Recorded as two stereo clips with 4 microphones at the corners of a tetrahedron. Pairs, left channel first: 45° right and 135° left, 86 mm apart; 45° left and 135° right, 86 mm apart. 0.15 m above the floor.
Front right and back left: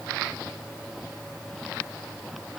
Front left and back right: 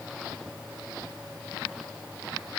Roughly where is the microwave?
No microwave in this recording.